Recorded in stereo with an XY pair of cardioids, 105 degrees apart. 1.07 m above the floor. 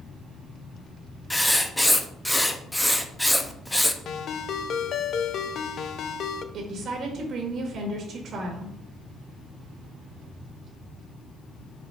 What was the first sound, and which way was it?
Writing, 5° left.